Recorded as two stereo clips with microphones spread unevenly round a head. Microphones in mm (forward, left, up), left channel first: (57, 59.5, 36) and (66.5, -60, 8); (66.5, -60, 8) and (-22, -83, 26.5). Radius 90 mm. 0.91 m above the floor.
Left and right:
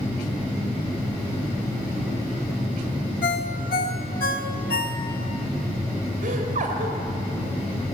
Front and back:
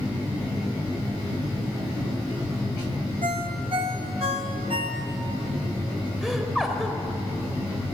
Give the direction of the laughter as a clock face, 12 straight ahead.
3 o'clock.